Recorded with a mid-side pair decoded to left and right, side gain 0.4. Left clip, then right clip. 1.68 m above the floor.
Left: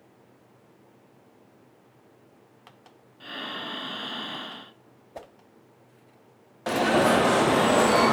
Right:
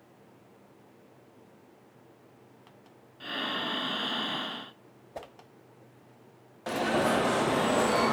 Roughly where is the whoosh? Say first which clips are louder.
Even; ahead.